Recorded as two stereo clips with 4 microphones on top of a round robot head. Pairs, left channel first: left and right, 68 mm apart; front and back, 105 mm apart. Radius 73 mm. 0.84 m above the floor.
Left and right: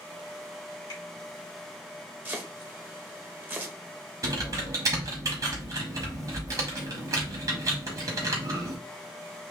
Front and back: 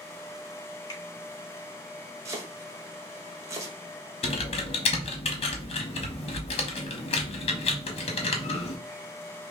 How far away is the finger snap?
About 3 m.